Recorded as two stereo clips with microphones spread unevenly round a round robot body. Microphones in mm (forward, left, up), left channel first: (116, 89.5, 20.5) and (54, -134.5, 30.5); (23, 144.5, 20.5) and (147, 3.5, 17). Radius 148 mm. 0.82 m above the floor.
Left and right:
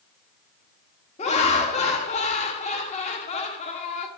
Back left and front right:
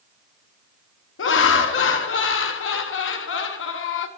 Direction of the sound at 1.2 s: 140° left.